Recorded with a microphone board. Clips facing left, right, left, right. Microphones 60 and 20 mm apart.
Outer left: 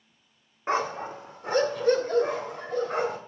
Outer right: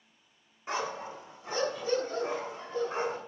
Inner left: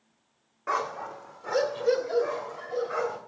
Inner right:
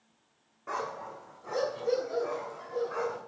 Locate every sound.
0.7 s a dog barking: 40° left (ahead or behind), 1.1 m; by 3.2 s 65° left (ahead or behind), 3 m